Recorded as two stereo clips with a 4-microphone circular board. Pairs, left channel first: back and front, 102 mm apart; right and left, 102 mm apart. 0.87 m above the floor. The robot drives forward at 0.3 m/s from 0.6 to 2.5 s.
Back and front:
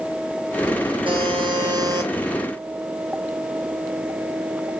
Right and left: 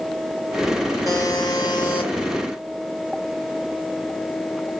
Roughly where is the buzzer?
Ahead right.